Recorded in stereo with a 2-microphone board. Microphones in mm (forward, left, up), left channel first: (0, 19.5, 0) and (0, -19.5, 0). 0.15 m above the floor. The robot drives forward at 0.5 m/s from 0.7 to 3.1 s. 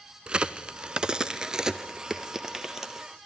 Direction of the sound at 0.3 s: 25° right (ahead or behind).